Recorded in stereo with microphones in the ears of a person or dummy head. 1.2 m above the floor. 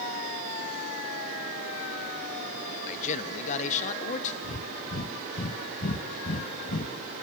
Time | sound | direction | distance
2.9 | a man speaking | 40° left (ahead or behind) | 1.2 m
4.4 | breathing | 45° left (ahead or behind) | 1.2 m